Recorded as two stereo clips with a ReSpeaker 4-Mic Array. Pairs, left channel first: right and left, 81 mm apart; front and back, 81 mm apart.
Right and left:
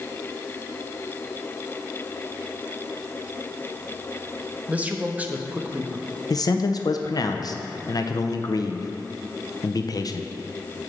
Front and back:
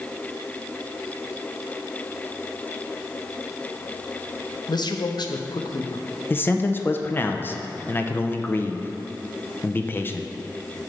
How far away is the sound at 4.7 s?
About 0.7 m.